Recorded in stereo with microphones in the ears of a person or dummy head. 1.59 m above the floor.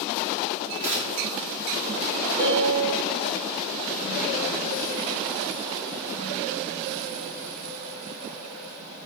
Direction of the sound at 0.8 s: 70° right (ahead or behind).